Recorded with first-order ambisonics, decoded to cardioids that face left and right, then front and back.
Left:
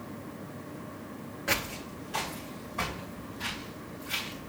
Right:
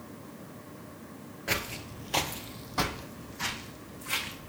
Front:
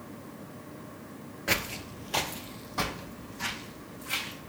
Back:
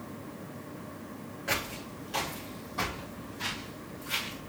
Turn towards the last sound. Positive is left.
turn(degrees=-70)